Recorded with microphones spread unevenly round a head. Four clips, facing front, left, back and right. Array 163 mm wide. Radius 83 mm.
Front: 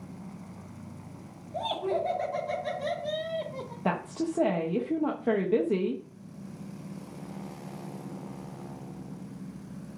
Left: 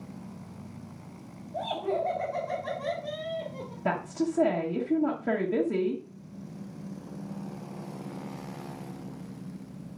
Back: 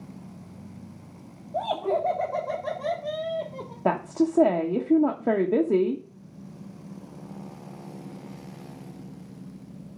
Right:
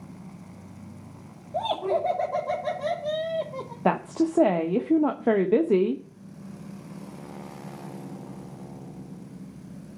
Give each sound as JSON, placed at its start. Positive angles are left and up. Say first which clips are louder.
{"t": 1.5, "sound": "laughter", "louder": "right 4 dB, back 4 dB", "azimuth_deg": -125, "distance_m": 3.0}
{"t": 3.9, "sound": "a woman speaking", "louder": "right 5 dB, back 7 dB", "azimuth_deg": -125, "distance_m": 1.0}